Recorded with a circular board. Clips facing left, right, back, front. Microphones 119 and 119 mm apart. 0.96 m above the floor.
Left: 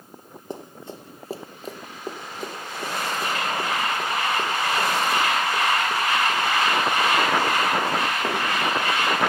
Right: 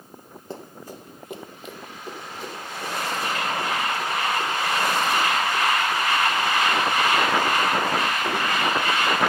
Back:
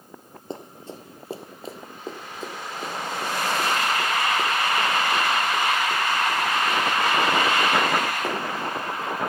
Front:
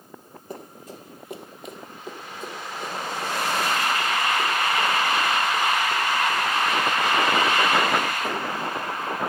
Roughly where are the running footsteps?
Behind left.